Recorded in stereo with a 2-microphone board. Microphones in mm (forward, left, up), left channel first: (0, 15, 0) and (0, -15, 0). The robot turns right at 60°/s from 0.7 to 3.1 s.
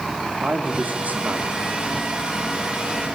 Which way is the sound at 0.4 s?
95° right.